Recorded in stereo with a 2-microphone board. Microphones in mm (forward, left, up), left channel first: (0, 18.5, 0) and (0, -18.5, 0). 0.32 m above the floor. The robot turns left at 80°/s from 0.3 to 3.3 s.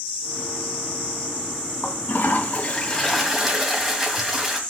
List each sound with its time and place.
1.8 s a toilet flushing: 110° left, 1.8 m; by 4.6 s 10° right, 1.8 m